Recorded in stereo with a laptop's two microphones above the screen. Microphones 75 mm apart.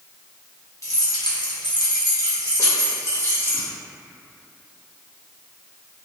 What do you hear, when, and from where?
0.8 s keys jangling: 45° left (ahead or behind), 0.7 m; by 3.7 s 30° left (ahead or behind), 1.7 m